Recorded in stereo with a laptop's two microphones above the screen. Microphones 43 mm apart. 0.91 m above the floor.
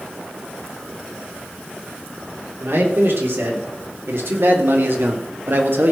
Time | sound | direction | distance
2.6 | a man speaking | 75° right (ahead or behind) | 3 m